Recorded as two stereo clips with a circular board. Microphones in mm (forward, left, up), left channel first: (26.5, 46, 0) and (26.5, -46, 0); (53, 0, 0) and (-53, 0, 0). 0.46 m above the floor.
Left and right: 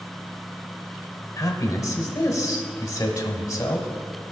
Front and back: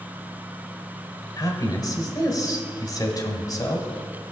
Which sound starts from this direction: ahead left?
A man speaking, at 1.4 s.